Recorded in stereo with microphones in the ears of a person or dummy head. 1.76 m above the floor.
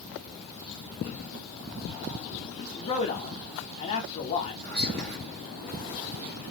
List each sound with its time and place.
2.7 s a man speaking: 35° left (ahead or behind), 1.1 m
4.6 s whispering: 55° right (ahead or behind), 1.2 m